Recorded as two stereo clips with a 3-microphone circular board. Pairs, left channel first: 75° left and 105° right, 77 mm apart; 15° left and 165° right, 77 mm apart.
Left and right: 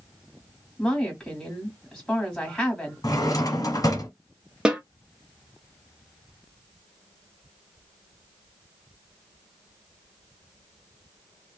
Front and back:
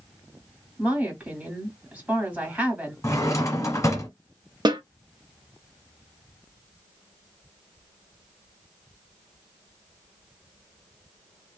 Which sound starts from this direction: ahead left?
A drawer, at 3.0 s.